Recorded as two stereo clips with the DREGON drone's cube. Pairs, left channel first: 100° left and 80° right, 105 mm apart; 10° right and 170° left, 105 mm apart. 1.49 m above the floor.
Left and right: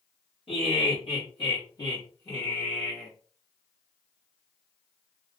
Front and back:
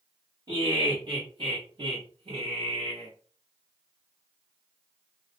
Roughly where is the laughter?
Behind left.